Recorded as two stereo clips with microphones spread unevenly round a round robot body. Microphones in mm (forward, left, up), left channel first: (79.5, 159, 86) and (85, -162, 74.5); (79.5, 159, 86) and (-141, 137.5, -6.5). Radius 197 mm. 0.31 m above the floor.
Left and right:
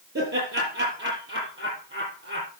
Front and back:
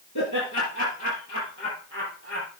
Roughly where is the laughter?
Ahead right.